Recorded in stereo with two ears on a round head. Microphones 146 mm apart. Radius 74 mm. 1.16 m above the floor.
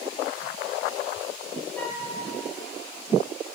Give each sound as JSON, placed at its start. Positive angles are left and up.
{"t": 1.8, "sound": "a flute", "side_deg": 10, "distance_m": 3.0}